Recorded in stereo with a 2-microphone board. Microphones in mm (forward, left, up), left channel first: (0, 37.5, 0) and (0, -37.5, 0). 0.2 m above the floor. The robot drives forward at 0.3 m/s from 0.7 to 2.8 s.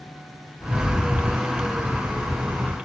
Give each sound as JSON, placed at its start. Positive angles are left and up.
{"t": 0.6, "sound": "a rattle", "side_deg": 25, "distance_m": 1.3}